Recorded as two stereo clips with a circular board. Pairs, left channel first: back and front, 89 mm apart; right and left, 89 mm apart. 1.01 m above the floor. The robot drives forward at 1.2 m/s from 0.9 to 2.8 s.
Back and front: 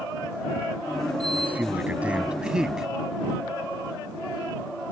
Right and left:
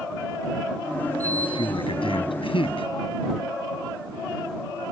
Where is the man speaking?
70° right; by 2.9 s 85° right.